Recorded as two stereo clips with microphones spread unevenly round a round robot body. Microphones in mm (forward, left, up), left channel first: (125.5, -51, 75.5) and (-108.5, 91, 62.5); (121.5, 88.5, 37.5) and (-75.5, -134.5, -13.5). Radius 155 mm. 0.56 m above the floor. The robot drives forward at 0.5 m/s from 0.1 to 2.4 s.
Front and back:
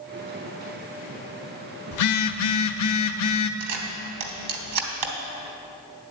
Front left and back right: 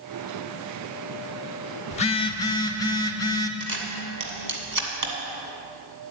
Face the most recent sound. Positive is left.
turn(degrees=170)